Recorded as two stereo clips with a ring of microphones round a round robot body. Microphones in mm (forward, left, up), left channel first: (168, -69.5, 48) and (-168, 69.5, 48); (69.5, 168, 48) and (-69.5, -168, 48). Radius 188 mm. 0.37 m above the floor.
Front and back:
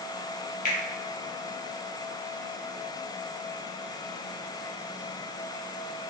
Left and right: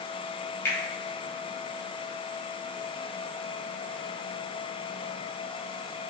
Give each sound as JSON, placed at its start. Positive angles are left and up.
{"t": 0.7, "sound": "a finger snap", "azimuth_deg": -5, "distance_m": 0.6}